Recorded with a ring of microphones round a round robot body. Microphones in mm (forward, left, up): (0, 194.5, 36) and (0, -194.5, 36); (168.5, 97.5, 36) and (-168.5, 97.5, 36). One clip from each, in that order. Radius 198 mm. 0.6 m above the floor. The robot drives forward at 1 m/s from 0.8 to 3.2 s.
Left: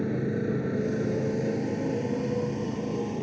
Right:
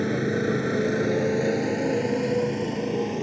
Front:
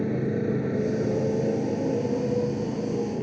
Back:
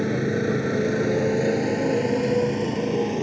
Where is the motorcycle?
125° right; by 3.2 s 145° right.